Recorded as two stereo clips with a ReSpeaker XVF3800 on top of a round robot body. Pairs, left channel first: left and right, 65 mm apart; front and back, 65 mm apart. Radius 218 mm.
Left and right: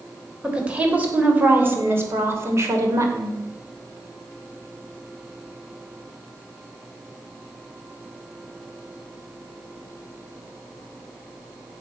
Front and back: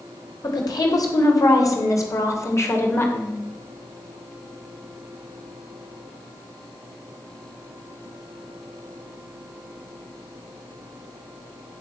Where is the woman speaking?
15° right, 4 m; by 3.4 s 55° right, 3.5 m.